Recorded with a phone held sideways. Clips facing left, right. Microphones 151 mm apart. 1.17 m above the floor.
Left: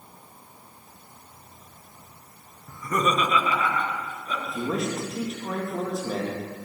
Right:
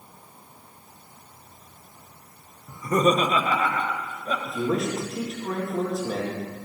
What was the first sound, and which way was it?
Laughter, 15° right (ahead or behind).